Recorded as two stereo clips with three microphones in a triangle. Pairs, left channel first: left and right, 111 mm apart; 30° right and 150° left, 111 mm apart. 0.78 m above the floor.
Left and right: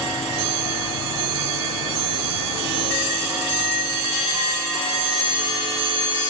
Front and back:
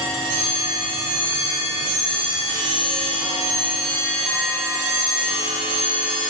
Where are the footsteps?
No footsteps in this recording.